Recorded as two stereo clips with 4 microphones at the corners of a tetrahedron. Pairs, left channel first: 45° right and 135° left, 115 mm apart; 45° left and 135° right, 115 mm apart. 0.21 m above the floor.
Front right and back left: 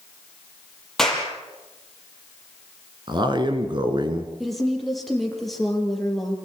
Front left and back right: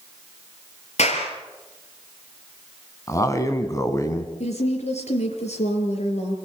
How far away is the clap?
About 4.5 m.